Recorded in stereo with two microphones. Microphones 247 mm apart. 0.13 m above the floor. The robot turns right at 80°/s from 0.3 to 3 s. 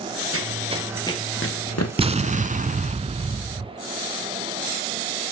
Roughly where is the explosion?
Behind right.